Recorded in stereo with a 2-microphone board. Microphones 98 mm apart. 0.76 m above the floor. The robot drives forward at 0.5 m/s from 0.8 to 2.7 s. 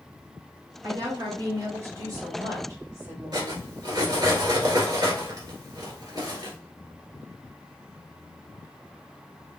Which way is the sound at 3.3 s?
40° right (ahead or behind).